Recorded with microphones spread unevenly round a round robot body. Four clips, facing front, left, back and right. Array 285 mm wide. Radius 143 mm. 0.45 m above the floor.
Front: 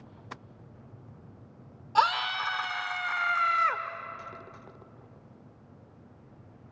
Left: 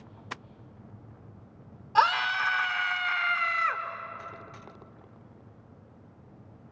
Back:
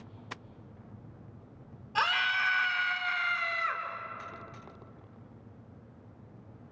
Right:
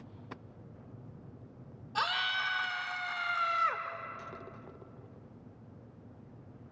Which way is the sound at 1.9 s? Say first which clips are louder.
Left 10 dB, front 4 dB; 60° left.